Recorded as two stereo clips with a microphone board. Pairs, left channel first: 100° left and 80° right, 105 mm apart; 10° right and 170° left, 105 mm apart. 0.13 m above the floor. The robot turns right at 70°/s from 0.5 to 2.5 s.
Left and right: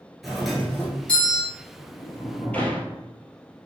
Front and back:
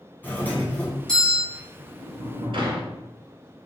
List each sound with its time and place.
0.2 s a doorbell: 10° left, 1.8 m; by 1.4 s 80° left, 1.8 m
1.5 s a sliding door: 105° left, 1.0 m; by 3.0 s 170° left, 1.0 m